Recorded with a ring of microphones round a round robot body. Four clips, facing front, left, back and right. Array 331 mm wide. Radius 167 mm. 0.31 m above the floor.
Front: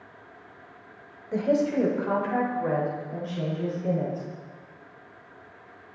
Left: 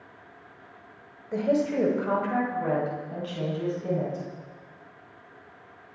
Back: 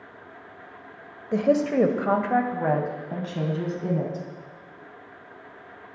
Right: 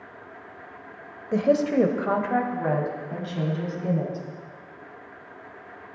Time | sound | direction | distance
1.3 | a woman speaking | 135° right | 1.1 m